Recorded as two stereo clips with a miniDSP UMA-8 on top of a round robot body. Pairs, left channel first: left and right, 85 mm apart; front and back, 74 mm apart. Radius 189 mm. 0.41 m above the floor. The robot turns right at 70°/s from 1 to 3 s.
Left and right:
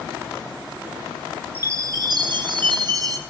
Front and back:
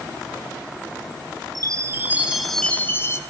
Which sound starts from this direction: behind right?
A chime, at 1.6 s.